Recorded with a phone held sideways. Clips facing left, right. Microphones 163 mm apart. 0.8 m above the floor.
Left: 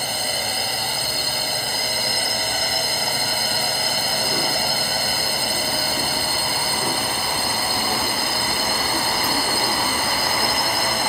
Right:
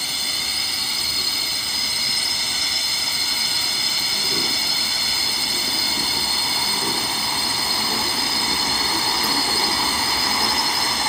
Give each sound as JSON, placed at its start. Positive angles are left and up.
{"t": 0.0, "sound": "a drone", "side_deg": 55}